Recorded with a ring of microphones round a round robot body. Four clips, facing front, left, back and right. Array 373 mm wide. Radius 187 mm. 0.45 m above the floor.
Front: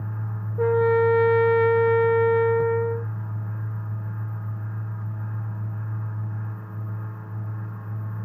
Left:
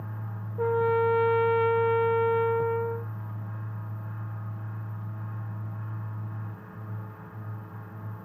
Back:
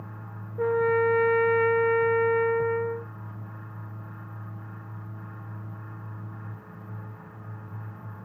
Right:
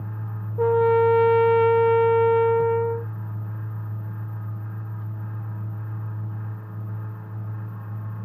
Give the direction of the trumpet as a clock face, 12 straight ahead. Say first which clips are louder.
Right 6 dB, front 4 dB; 2 o'clock.